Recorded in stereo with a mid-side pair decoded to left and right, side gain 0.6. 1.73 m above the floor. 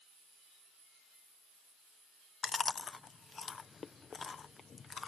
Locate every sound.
2.4 s chewing: 30° left